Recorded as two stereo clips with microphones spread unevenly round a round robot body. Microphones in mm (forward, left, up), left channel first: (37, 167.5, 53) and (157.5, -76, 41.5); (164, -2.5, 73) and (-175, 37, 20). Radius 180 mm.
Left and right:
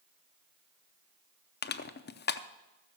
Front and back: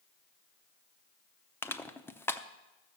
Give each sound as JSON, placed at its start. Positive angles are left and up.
{"t": 1.6, "sound": "crushing", "azimuth_deg": 85, "distance_m": 0.7}